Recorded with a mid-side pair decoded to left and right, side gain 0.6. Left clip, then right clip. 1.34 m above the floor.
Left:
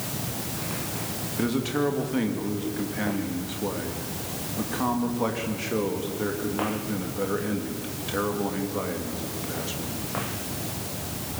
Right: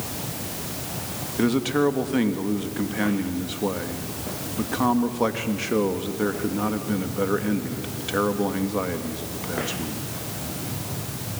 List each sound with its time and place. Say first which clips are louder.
1.4 s a man speaking: right 5 dB; 25° right, 2.5 m